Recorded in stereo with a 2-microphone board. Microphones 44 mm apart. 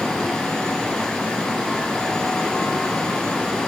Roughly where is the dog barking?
I don't hear a dog barking.